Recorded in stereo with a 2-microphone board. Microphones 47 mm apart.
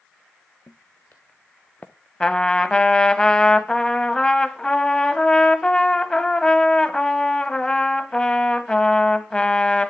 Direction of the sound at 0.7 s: 55° left (ahead or behind).